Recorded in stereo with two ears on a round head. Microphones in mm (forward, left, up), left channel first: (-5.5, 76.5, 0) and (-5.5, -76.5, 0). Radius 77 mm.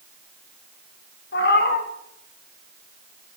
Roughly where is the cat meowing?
Left.